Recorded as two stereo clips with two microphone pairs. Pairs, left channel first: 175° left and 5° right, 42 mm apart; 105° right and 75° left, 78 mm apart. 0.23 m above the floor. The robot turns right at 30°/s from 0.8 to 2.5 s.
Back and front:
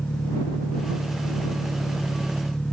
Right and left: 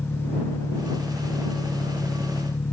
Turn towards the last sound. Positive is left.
turn(degrees=-120)